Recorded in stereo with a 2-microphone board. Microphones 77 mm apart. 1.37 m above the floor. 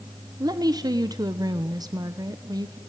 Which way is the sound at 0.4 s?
55° right (ahead or behind).